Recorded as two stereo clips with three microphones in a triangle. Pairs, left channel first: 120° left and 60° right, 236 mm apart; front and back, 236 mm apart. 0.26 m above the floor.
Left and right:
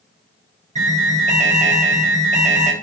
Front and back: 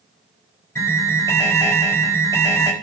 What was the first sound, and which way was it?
An alarm, 65° right.